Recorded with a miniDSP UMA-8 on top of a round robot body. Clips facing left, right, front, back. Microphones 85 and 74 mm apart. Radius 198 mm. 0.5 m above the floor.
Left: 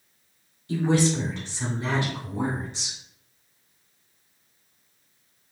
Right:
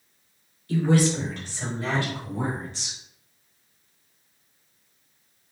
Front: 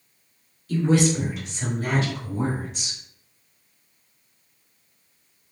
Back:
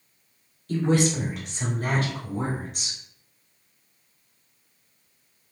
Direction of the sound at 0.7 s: 150° left.